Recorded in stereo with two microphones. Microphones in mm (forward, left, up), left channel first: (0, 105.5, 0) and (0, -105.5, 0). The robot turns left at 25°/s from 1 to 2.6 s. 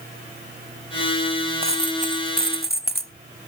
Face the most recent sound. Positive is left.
turn(degrees=-50)  # may be behind; listen again after turning